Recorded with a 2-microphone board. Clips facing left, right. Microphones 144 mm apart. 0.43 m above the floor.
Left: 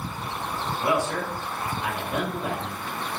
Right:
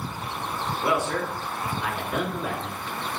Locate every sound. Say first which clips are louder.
0.8 s a man speaking: even; 20° left (ahead or behind), 3.5 m